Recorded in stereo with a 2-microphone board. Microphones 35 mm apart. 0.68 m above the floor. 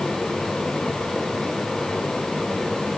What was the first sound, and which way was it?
Only background noise.